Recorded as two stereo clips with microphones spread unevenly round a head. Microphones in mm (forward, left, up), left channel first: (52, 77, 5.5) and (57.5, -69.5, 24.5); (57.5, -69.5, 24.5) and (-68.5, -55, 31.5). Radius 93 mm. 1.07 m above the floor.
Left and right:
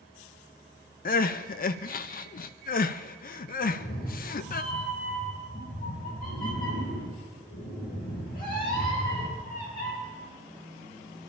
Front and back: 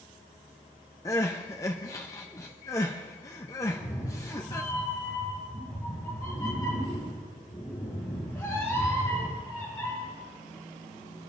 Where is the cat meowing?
70° left, 4 m.